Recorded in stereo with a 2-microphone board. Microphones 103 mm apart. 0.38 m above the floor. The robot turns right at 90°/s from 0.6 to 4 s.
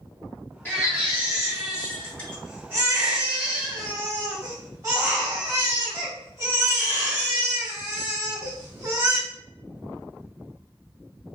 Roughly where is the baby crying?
Ahead.